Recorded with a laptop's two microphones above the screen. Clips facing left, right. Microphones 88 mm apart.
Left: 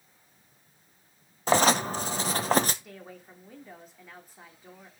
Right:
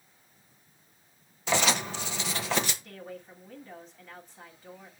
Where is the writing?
40° left (ahead or behind), 0.8 m.